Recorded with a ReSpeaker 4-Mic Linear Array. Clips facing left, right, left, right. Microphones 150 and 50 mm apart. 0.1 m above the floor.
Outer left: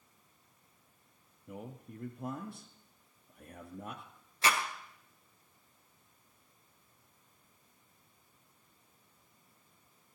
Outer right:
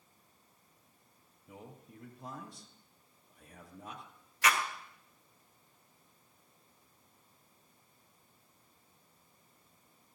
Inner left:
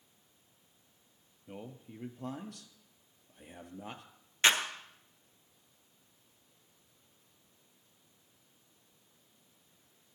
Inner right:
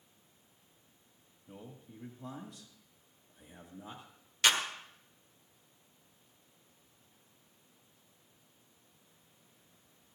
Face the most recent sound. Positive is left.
turn(degrees=30)  # may be behind; listen again after turning